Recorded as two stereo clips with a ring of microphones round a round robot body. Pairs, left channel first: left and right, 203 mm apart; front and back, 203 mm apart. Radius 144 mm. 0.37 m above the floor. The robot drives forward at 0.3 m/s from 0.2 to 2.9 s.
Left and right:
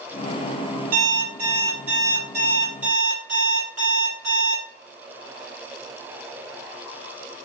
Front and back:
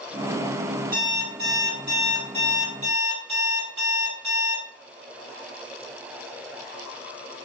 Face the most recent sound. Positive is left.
turn(degrees=-140)